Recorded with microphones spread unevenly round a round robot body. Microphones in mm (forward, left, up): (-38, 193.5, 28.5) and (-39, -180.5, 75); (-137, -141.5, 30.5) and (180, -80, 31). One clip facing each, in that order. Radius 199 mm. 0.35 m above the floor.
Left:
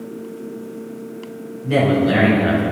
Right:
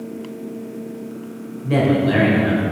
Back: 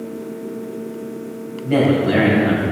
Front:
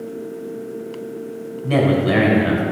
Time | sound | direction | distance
1.6 | a man speaking | 5° left | 2 m